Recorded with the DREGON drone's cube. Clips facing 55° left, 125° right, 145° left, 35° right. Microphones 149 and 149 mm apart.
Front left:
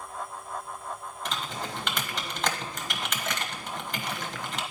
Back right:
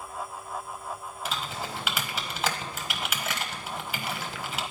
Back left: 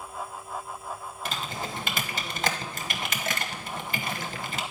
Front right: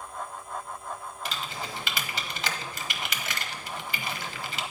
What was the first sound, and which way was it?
Typing on a keyboard, 155° left.